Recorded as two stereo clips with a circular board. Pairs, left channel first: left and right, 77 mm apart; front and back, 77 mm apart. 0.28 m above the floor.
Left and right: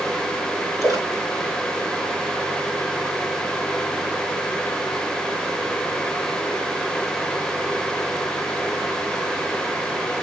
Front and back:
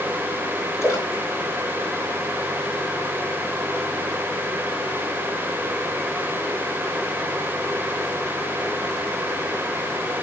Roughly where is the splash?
Ahead right.